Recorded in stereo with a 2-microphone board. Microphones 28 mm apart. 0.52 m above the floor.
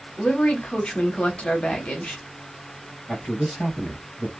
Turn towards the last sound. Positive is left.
turn(degrees=60)  # may be behind; listen again after turning